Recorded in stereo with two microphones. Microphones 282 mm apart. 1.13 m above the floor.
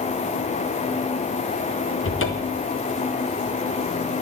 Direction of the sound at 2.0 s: 50° left (ahead or behind).